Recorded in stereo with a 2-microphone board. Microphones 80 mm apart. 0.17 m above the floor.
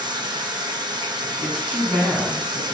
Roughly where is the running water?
Right.